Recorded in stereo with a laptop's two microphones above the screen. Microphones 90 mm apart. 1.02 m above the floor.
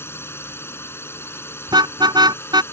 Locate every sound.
0.0 s a drone: 25° left (ahead or behind)
1.7 s a car horn: 50° right (ahead or behind)